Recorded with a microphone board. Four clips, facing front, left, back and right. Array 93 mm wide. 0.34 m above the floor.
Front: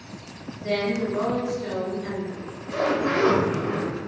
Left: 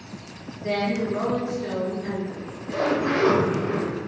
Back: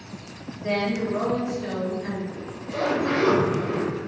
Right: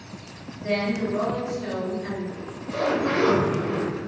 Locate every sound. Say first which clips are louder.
0.6 s a woman speaking: even, even; straight behind, 1.2 m
2.3 s a zipper: left 1 dB, even; 45° left, 1.1 m